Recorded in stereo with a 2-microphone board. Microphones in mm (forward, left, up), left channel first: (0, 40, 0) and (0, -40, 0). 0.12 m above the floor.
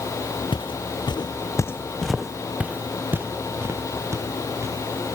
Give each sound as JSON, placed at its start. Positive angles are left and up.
{"t": 0.5, "sound": "footsteps", "side_deg": 85, "distance_m": 0.9}